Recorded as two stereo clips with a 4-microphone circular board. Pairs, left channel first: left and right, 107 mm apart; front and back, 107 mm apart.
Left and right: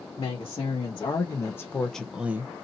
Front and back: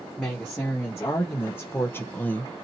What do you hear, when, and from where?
0.2 s a woman speaking: 70° left, 1.2 m; by 2.5 s 60° right, 0.6 m